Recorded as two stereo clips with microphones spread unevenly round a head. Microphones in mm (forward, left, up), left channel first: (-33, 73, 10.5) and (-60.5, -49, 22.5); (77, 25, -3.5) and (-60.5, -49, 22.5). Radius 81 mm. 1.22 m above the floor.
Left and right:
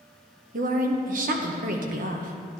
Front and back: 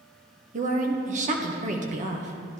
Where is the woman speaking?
105° right, 1.3 m.